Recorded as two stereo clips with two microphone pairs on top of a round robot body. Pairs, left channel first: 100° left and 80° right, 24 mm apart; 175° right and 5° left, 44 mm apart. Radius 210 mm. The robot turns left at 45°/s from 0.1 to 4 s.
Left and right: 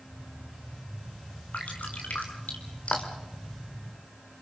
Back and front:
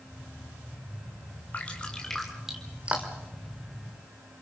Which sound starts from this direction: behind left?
Dripping, at 1.5 s.